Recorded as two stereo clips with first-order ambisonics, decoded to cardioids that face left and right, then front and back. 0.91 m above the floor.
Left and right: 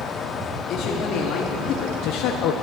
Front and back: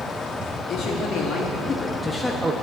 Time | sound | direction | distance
0.7 | a man speaking | 45° left | 1.8 m